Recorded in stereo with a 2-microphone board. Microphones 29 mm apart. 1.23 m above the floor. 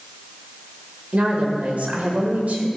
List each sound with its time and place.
1.1 s a woman speaking: 75° right (ahead or behind), 1.7 m